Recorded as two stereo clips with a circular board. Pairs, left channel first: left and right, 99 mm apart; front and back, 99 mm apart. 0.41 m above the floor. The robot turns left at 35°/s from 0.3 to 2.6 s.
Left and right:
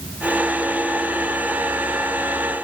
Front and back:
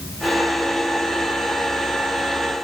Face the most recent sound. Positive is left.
No sound to turn to.